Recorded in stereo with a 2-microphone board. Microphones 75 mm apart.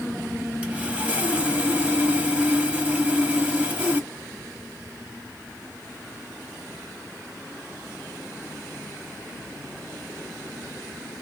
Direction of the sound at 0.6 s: 20° right (ahead or behind).